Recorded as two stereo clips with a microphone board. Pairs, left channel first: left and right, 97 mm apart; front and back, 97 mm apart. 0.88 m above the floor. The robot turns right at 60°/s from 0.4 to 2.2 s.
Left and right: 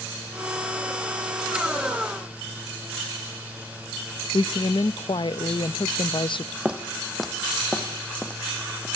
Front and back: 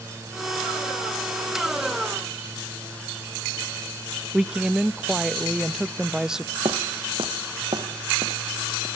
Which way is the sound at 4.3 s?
95° left.